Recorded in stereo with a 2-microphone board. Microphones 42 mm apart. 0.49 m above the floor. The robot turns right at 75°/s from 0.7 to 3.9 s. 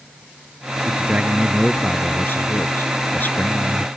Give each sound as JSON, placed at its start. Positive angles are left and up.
{"t": 0.8, "sound": "a man speaking", "azimuth_deg": -50}